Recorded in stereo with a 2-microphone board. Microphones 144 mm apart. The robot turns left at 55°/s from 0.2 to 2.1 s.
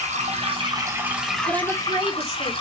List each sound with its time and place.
0.0 s running water: 115° right, 3 m; by 2.6 s 140° left, 3 m
1.5 s a woman speaking: 30° right, 1.8 m; by 2.5 s 65° right, 1.8 m